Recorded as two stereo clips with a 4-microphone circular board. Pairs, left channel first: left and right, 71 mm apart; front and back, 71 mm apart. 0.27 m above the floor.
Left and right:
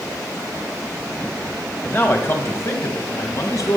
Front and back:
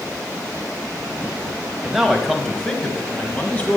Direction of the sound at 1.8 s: 105° left.